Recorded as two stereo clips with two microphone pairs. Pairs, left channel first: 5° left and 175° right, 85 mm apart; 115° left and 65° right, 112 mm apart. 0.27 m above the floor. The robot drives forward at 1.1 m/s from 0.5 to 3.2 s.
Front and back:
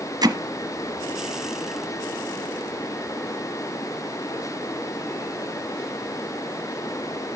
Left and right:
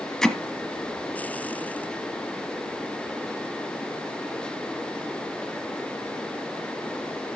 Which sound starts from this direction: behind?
Hammering, at 0.2 s.